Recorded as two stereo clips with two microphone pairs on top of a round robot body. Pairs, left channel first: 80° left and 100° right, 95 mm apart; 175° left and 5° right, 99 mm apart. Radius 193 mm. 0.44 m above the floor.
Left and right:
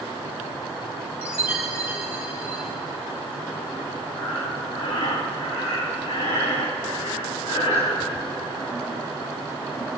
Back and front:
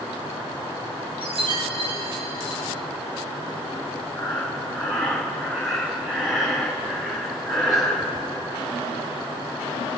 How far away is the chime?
About 7 m.